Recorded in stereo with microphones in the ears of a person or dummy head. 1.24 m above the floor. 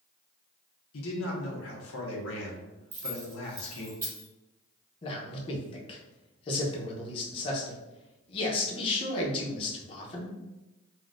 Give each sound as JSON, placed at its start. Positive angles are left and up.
{"t": 0.9, "sound": "a man speaking", "side_deg": 65, "distance_m": 1.0}
{"t": 2.9, "sound": "keys jangling", "side_deg": -15, "distance_m": 1.0}
{"t": 5.0, "sound": "a man speaking", "side_deg": 35, "distance_m": 0.8}